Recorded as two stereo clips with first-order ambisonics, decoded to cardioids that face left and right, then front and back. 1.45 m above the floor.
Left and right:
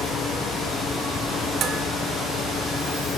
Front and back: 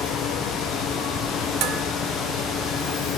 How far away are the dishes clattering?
About 1.5 m.